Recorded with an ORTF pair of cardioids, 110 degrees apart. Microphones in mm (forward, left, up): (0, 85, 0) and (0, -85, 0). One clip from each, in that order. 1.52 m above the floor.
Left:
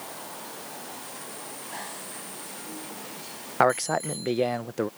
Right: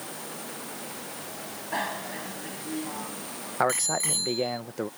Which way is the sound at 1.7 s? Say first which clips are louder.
Right 10 dB; 45° right.